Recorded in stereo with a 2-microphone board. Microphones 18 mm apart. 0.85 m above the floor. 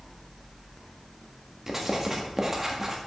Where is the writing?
20° right (ahead or behind), 1.3 m.